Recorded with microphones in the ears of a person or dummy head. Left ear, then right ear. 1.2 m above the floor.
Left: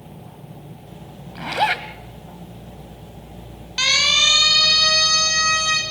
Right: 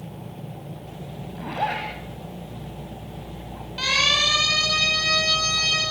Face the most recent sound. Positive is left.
turn(degrees=65)  # may be behind; listen again after turning